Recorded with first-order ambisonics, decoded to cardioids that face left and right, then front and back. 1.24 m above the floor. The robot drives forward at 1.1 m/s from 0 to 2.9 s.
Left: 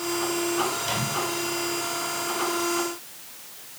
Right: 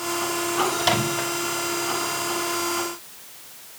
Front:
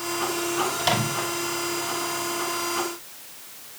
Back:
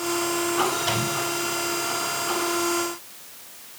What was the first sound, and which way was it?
A microwave, 60° right.